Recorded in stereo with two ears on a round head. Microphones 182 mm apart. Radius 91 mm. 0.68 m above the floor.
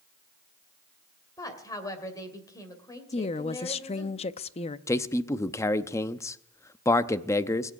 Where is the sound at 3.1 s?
30° left (ahead or behind), 0.5 m.